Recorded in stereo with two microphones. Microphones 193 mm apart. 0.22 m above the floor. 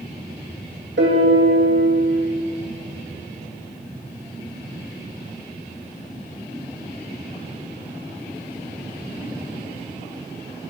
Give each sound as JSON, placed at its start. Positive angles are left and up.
{"t": 1.0, "sound": "a piano", "side_deg": -80, "distance_m": 2.0}